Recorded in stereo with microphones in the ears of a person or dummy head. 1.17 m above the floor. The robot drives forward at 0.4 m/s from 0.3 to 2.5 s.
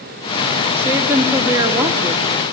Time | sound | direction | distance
0.8 | a woman speaking | 10° right (ahead or behind) | 2.5 m